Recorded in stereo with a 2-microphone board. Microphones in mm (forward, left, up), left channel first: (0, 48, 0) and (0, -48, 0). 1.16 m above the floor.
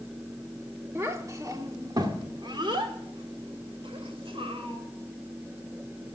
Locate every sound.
0.9 s a child speaking: 25° right (ahead or behind), 1.6 m; by 4.8 s 70° right (ahead or behind), 3 m